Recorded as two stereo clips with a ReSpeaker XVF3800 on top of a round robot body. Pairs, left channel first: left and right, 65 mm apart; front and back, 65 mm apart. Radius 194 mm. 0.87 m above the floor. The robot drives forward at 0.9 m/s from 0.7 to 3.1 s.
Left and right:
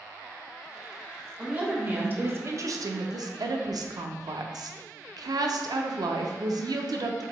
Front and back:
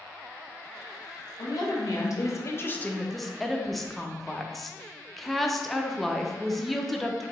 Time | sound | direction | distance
1.4 | a woman speaking | 20° right | 1.7 m